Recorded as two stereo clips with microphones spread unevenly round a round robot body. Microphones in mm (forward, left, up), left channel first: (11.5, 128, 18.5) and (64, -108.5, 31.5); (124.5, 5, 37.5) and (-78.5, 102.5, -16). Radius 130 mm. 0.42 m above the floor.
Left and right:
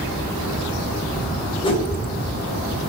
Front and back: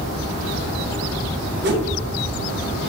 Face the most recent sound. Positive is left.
turn(degrees=170)